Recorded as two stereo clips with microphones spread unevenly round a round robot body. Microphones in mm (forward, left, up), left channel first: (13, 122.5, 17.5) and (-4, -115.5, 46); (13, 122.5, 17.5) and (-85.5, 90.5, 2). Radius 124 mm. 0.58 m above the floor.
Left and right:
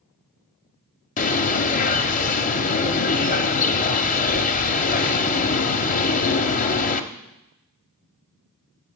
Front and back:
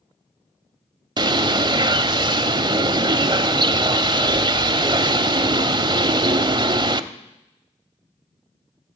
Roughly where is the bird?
Behind left.